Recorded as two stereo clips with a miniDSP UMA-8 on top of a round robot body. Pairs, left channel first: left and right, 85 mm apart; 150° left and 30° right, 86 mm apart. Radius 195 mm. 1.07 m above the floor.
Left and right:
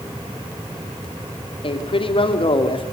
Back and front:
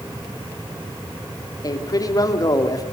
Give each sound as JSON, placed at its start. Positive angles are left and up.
{"t": 1.6, "sound": "a man speaking", "azimuth_deg": 105, "distance_m": 3.0}